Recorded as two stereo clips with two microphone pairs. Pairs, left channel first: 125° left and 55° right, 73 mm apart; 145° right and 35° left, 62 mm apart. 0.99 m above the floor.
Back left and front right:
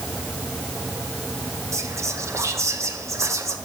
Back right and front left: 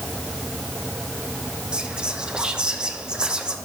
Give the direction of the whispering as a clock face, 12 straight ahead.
1 o'clock.